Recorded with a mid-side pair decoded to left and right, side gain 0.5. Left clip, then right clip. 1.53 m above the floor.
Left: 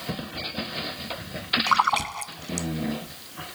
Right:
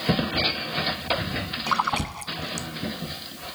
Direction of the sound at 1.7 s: 20° left.